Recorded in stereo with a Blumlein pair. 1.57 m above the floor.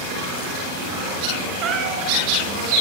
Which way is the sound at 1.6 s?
30° right.